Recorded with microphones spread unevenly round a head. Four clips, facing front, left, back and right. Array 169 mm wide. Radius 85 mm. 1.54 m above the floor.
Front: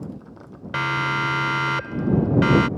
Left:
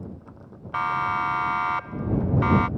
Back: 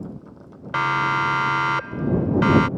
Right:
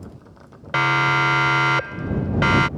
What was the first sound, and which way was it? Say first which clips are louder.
A siren: right 5 dB, back 3 dB; 105° right.